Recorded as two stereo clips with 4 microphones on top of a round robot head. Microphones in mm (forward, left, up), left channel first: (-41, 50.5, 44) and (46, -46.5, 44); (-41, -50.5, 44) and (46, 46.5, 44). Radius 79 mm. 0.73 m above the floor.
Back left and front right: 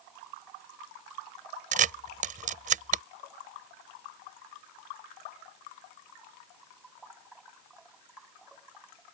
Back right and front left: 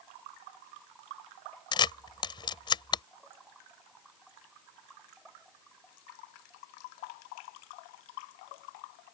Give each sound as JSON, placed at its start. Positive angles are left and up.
{"t": 1.7, "sound": "a camera shutter", "azimuth_deg": -75}